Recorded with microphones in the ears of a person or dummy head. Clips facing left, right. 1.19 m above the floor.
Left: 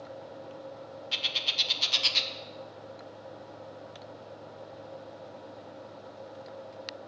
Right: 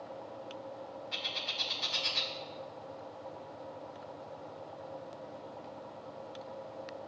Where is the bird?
35° left (ahead or behind), 0.6 m.